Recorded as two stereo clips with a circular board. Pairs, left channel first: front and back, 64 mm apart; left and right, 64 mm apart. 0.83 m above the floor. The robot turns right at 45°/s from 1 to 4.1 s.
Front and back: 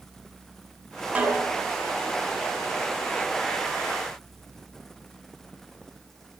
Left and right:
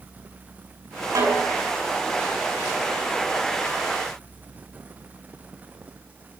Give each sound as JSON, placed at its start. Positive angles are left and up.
{"t": 1.1, "sound": "a snare drum", "azimuth_deg": -110, "distance_m": 5.0}